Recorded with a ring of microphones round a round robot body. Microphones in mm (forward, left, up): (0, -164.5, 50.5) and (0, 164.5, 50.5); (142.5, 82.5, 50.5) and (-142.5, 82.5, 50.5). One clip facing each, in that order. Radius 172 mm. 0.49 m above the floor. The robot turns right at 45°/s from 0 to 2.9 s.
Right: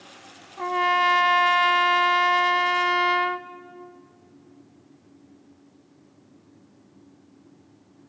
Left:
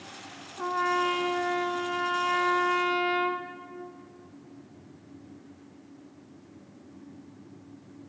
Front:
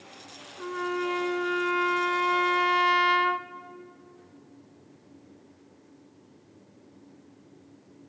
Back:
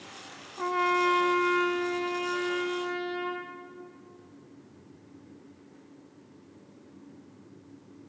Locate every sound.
0.6 s a trumpet: 135° right, 0.7 m; by 3.5 s 30° right, 0.7 m